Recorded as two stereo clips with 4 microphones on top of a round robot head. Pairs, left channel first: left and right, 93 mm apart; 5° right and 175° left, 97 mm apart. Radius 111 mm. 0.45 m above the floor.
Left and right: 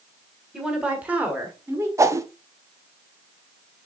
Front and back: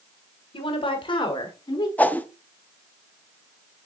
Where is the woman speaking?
10° right, 2 m; by 1.9 s 35° right, 1.7 m.